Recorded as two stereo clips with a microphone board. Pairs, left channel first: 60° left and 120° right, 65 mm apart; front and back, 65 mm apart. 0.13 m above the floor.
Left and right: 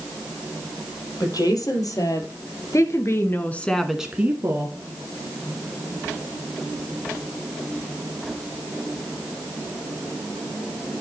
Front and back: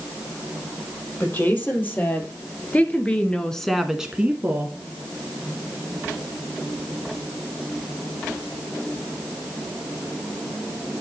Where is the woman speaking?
55° left, 3.5 m; by 4.8 s 130° right, 1.4 m.